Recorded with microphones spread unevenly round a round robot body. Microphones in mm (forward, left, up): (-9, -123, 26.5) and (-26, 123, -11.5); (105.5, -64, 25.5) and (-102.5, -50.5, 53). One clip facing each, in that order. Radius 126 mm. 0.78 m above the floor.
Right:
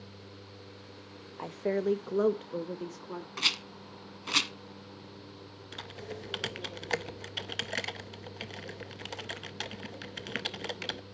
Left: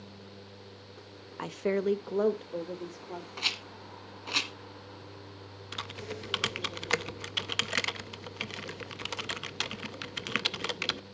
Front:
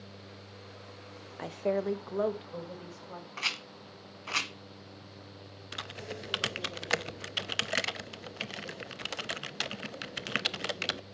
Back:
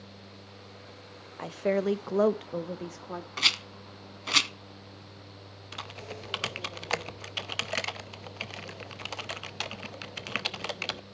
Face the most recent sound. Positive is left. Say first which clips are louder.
# left 1 dB, front 1 dB
turn(degrees=45)